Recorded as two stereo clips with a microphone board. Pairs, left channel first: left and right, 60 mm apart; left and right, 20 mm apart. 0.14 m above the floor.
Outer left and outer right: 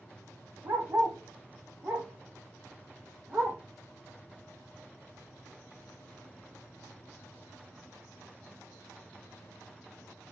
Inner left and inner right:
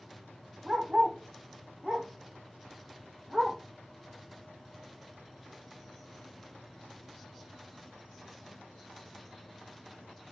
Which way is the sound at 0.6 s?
40° right (ahead or behind).